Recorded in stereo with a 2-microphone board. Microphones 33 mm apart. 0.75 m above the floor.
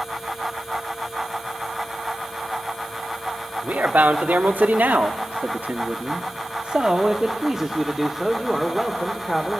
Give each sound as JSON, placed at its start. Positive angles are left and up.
{"t": 3.6, "sound": "a man speaking", "side_deg": -60, "distance_m": 1.5}